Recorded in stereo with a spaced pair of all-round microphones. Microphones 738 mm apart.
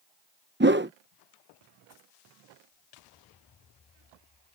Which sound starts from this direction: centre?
A whoosh, at 0.6 s.